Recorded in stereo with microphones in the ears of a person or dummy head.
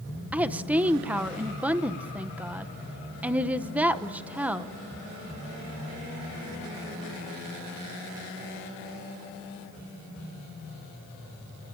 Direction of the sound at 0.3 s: 10° right (ahead or behind).